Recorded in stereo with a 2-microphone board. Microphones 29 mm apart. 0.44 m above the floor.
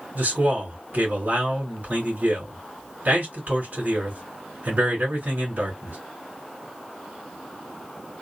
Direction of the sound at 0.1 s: 60° right (ahead or behind).